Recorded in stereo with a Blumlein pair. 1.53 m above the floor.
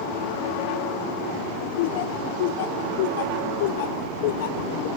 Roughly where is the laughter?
Ahead left.